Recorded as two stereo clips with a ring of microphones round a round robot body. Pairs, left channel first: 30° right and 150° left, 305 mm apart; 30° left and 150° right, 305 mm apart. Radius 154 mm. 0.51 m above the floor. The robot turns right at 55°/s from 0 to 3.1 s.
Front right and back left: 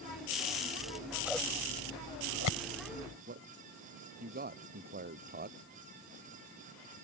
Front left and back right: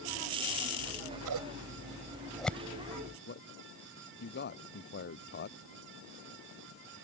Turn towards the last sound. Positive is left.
turn(degrees=90)